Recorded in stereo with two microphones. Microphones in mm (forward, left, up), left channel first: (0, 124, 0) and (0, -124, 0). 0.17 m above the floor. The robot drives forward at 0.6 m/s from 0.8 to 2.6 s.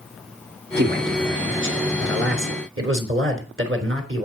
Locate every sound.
0.8 s a man speaking: 45° right (ahead or behind), 3 m; by 4.2 s 55° right (ahead or behind), 3 m